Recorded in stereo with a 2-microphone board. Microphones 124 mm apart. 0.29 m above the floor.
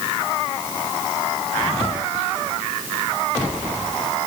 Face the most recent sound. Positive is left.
No sound to turn to.